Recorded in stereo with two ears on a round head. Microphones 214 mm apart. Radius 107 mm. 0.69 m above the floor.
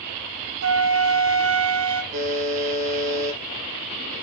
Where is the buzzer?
35° right (ahead or behind), 5 m.